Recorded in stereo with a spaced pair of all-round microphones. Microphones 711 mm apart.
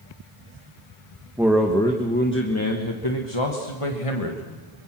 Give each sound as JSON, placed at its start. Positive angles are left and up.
{"t": 1.4, "sound": "a man speaking", "side_deg": -5, "distance_m": 1.8}